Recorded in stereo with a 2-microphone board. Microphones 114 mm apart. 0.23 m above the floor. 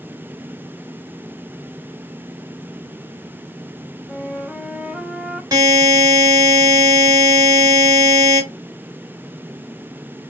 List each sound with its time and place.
4.1 s a flute: 5° right (ahead or behind), 0.6 m
5.5 s a buzzer: 35° right (ahead or behind), 1.8 m